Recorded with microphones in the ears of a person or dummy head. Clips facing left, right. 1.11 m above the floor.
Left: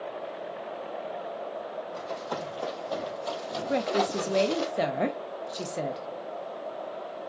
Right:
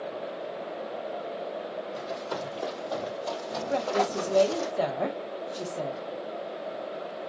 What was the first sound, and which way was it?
Running footsteps, 10° right (ahead or behind).